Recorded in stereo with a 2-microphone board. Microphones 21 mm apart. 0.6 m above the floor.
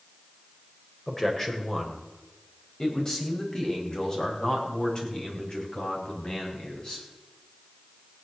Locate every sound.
1.1 s a man speaking: 15° left (ahead or behind), 3 m; by 7.0 s 45° left (ahead or behind), 5.5 m